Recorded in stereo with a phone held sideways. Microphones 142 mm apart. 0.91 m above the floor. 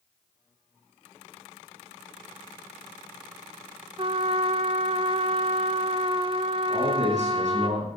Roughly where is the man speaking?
Right.